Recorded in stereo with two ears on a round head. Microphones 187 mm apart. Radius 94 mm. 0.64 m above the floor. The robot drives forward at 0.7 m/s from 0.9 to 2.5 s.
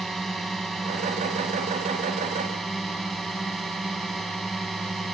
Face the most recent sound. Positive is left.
turn(degrees=0)  # may be behind; listen again after turning